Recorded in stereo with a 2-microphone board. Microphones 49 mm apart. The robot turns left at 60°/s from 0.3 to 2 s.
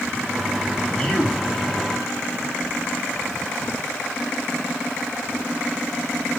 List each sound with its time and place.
0.9 s a man speaking: 165° left, 2 m; by 1.5 s 130° left, 2 m